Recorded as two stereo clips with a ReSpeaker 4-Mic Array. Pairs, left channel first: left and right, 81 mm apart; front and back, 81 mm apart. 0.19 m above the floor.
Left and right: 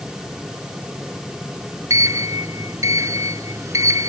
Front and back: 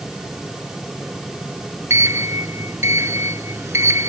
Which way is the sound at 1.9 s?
130° right.